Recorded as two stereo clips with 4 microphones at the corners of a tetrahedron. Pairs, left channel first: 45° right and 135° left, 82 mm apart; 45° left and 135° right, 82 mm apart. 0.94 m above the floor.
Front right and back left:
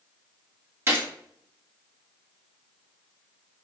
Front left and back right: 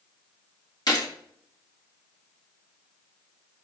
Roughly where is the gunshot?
Left.